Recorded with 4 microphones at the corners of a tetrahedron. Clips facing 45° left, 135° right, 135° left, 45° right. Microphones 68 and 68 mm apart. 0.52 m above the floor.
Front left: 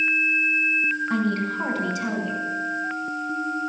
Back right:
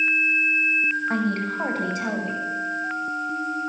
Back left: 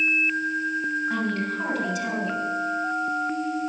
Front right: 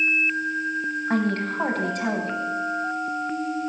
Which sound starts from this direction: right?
A woman speaking, at 1.1 s.